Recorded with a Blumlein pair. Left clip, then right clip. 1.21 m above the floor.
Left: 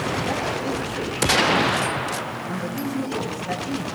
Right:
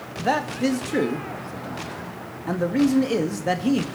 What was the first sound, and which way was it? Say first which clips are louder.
A man speaking: right 2 dB; 35° right.